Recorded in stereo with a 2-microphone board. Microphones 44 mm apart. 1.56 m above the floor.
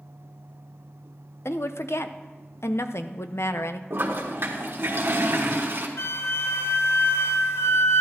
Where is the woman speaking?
70° left (ahead or behind), 0.5 m.